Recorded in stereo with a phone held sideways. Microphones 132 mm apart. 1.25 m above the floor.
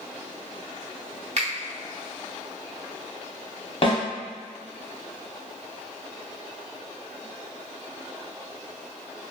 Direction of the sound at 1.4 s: 55° right (ahead or behind).